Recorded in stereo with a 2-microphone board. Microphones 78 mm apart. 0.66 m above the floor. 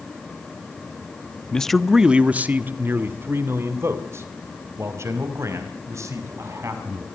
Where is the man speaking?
10° left (ahead or behind), 0.7 m; by 7.0 s 45° right (ahead or behind), 5 m.